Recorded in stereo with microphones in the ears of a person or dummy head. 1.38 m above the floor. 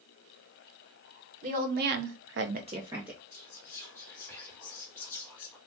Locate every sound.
1.4 s a woman speaking: 45° right (ahead or behind), 1.3 m; by 3.2 s 5° right (ahead or behind), 1.0 m
3.3 s whispering: 10° left (ahead or behind), 1.4 m